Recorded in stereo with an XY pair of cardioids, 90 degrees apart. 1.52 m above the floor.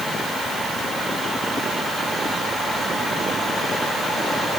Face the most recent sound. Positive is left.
No sound to turn to.